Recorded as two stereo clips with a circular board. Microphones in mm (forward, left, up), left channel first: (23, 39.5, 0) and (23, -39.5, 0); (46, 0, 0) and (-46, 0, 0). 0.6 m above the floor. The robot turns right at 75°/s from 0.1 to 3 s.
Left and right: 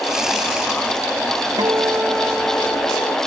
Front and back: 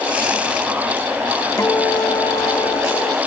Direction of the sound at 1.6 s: 60° right.